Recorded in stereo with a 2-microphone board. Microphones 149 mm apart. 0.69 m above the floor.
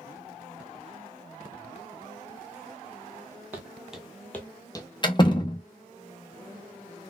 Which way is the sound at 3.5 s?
10° right (ahead or behind).